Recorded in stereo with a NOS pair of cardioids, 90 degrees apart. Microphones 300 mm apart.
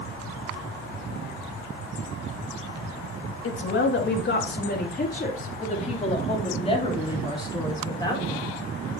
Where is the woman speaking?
45° left, 2 m; by 8.5 s 10° left, 4 m.